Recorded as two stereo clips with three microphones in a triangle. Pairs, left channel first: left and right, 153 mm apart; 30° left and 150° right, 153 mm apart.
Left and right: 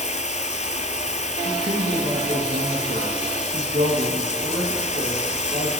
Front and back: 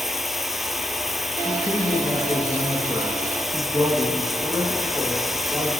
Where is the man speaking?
70° right, 5 m.